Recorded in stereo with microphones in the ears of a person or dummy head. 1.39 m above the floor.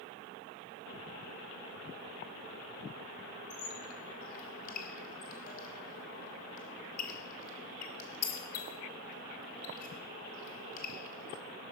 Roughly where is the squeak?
Left.